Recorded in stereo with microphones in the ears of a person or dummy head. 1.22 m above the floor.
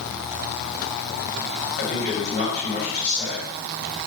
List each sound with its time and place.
1.8 s a man speaking: 75° left (ahead or behind), 1.8 m